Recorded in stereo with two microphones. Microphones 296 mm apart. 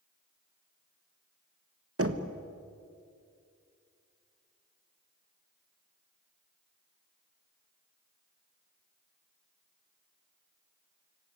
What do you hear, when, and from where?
2.0 s knocking: 50° right (ahead or behind), 1.3 m